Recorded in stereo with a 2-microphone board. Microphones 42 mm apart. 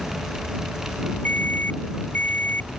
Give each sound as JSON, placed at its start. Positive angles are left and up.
{"t": 1.2, "sound": "an alarm", "side_deg": 50}